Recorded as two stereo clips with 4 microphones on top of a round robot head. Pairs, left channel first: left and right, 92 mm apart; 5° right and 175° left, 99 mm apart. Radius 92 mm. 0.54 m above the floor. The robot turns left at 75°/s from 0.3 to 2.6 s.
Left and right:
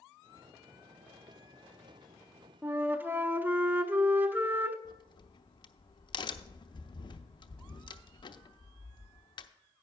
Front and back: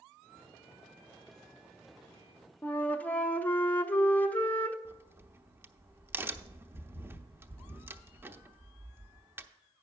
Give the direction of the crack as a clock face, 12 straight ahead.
8 o'clock.